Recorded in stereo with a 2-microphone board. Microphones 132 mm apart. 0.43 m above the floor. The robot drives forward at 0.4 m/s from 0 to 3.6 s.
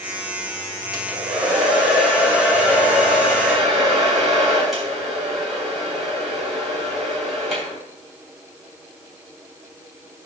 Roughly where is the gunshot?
No gunshot in this recording.